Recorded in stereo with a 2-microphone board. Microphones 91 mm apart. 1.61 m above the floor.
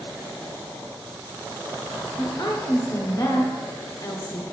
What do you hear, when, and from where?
2.2 s a woman speaking: 40° left (ahead or behind), 1.0 m